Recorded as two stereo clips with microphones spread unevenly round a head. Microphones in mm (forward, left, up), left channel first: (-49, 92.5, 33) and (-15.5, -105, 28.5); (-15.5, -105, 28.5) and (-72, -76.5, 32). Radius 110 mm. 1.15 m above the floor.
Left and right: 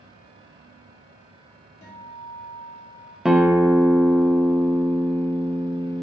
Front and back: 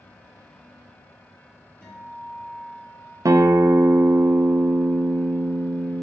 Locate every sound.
1.8 s a guitar: 35° left, 1.9 m
3.2 s a guitar: 170° right, 0.5 m